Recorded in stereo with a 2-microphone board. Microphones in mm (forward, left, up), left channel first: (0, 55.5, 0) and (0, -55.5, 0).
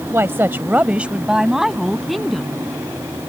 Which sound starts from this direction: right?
A woman speaking, at 0.1 s.